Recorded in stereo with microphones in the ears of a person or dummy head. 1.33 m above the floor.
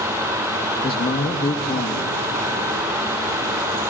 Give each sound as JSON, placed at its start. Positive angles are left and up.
{"t": 0.8, "sound": "a man speaking", "side_deg": 30, "distance_m": 0.9}